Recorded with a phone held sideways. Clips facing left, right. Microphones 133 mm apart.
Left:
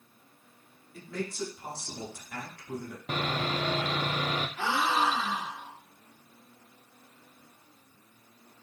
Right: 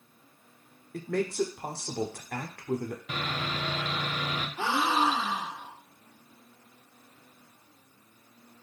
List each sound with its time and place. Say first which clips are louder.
0.9 s a man speaking: right 7 dB; 60° right (ahead or behind), 0.8 m
3.1 s sawing: left 7 dB; 40° left (ahead or behind), 0.6 m
4.6 s a gasp: right 2 dB; 15° right (ahead or behind), 1.1 m